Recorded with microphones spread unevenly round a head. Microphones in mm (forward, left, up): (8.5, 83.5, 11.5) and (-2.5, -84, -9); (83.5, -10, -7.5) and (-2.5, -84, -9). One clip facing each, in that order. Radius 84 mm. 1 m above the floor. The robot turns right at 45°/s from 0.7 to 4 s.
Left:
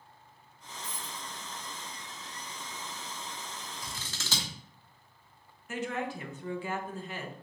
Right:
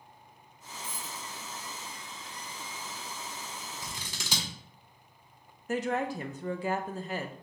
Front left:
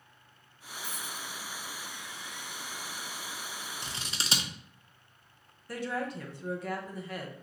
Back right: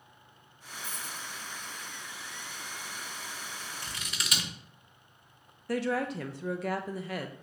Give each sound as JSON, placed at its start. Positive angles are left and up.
{"t": 0.8, "sound": "a dropped coin", "azimuth_deg": 75, "distance_m": 1.7}
{"t": 3.8, "sound": "scissors", "azimuth_deg": -30, "distance_m": 0.7}
{"t": 5.7, "sound": "a woman speaking", "azimuth_deg": -140, "distance_m": 0.5}